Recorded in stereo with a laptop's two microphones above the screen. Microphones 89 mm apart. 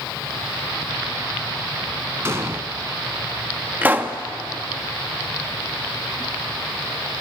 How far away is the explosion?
About 1.3 m.